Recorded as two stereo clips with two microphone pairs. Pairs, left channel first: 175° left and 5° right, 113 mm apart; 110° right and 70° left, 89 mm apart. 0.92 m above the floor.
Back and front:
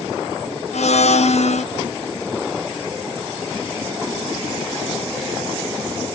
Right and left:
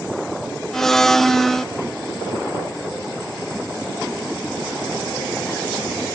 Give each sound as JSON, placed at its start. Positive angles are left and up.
{"t": 0.7, "sound": "a blender", "azimuth_deg": 165, "distance_m": 1.0}